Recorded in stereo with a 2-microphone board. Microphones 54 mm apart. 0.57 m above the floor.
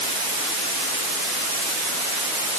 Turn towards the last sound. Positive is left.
No sound to turn to.